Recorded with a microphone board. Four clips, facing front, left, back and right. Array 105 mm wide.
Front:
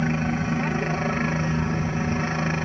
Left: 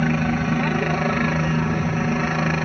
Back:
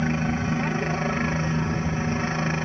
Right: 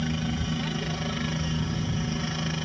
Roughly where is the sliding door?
I don't hear a sliding door.